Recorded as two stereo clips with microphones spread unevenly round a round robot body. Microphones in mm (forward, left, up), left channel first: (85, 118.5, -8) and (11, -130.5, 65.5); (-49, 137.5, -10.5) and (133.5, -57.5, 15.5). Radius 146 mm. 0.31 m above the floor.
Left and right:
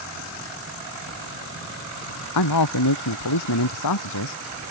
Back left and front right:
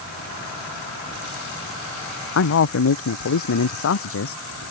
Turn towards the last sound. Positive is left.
turn(degrees=95)